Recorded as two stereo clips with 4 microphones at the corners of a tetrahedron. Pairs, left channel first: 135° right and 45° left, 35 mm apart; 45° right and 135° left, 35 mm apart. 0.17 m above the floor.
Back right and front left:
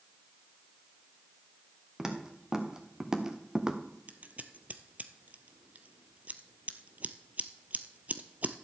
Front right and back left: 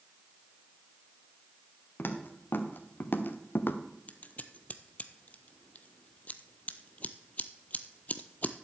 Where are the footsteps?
30° right, 2 m.